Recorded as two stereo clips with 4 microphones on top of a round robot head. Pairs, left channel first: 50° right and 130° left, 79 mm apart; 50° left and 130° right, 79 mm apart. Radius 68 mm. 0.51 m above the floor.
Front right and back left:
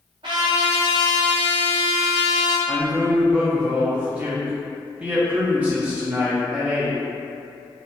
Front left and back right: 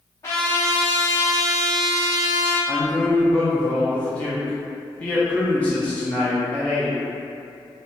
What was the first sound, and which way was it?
A trumpet, 105° left.